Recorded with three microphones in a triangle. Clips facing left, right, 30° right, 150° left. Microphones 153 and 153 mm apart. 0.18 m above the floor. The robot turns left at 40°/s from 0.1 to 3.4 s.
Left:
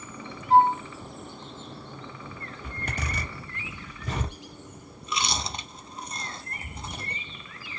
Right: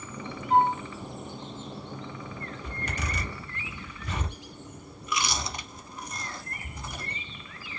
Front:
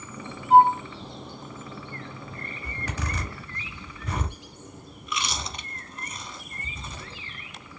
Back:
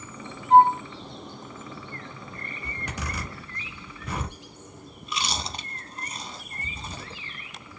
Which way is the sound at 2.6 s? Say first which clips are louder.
Left 2 dB, front 2 dB; 90° left.